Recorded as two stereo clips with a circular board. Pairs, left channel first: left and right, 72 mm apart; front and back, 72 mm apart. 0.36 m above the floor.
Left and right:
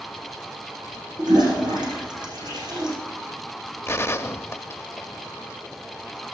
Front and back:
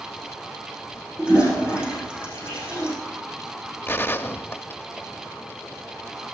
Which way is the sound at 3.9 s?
45° left.